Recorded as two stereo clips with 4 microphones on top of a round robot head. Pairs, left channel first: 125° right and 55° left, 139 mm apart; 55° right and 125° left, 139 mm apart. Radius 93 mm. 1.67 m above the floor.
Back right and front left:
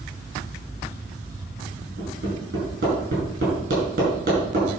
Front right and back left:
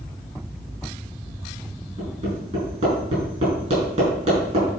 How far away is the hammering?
About 5.5 m.